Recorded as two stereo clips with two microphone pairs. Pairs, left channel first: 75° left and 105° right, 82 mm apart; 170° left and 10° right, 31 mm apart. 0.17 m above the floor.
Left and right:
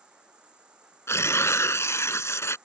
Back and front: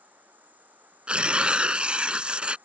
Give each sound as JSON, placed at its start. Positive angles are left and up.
{"t": 0.0, "sound": "an insect", "azimuth_deg": -30}
{"t": 1.1, "sound": "tearing paper", "azimuth_deg": 25}